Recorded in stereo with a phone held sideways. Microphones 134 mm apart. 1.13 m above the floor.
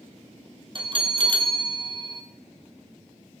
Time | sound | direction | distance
0.8 | a bell | 40° right (ahead or behind) | 1.7 m